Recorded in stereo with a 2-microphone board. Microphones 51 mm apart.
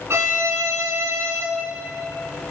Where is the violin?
45° right (ahead or behind), 4 m.